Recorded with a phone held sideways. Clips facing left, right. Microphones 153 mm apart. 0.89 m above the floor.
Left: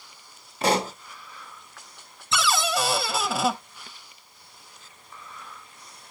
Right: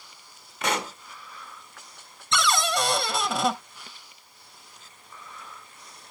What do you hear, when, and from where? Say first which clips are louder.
0.6 s a pop: left 5 dB; 35° left (ahead or behind), 0.8 m
2.3 s a cupboard door: even; centre (ahead or behind), 0.7 m